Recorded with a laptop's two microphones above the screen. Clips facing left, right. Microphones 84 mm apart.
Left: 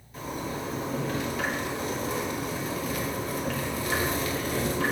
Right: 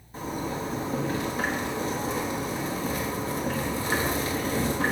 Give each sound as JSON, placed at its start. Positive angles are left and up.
{"t": 0.1, "sound": "a zipper", "side_deg": -35, "distance_m": 1.1}